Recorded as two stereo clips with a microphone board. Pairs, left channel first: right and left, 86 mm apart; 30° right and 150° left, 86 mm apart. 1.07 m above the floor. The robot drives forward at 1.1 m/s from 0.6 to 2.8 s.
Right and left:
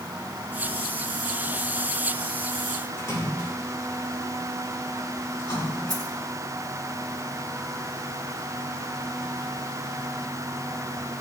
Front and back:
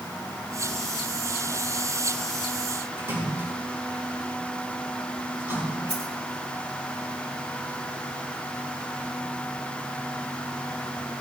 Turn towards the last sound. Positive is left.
turn(degrees=135)